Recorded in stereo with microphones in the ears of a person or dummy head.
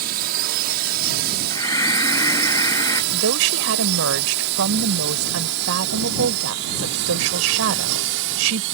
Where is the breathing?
20° left (ahead or behind).